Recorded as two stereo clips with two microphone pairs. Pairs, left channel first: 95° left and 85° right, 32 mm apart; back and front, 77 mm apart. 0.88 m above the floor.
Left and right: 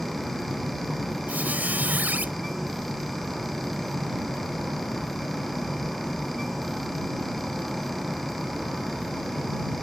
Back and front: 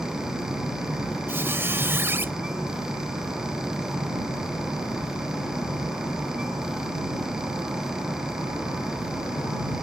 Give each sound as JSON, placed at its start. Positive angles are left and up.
{"t": 1.3, "sound": "a squeak", "azimuth_deg": -60}